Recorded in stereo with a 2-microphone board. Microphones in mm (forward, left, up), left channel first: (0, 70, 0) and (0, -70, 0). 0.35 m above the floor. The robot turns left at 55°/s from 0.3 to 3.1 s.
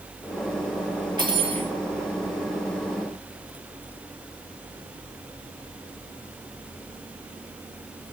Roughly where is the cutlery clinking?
Right.